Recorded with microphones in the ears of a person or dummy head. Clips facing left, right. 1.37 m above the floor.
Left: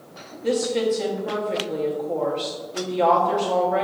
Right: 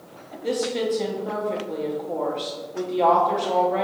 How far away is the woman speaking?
About 0.7 m.